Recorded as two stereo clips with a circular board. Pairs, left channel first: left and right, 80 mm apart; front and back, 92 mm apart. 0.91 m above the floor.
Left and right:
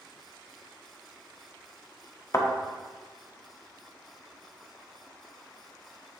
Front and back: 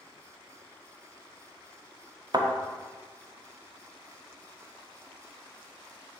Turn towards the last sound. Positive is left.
turn(degrees=140)